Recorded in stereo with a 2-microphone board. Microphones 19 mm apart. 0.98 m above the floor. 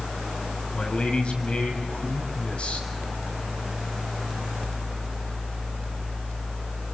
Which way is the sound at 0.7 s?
80° left.